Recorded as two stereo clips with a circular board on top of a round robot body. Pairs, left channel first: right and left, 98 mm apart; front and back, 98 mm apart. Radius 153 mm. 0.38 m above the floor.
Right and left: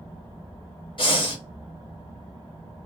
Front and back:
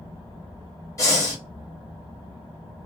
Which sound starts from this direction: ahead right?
Breathing, at 1.0 s.